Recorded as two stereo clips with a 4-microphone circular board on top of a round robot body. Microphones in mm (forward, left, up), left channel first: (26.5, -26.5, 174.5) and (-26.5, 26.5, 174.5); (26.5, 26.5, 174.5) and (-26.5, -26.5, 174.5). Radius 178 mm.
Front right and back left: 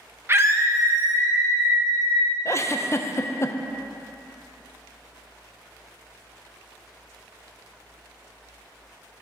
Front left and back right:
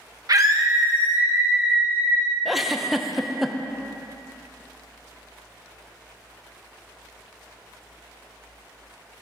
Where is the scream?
170° right, 1.2 m; by 2.4 s 165° left, 3 m.